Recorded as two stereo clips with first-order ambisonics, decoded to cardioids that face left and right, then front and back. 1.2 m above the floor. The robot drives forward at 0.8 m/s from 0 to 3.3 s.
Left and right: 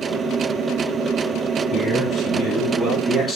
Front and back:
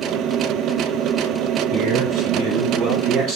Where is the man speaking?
175° left, 4.5 m.